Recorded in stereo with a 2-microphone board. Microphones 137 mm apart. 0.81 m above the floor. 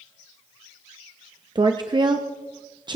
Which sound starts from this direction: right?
A woman speaking, at 1.6 s.